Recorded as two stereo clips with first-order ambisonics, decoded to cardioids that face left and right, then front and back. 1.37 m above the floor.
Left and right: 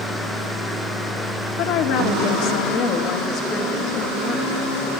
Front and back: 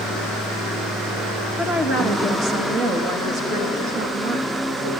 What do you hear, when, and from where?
1.6 s a woman speaking: 110° left, 2.5 m; by 5.0 s 160° left, 3.5 m